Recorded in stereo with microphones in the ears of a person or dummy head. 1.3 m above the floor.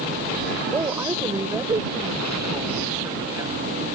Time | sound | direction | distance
0.7 | a woman speaking | 20° right (ahead or behind) | ?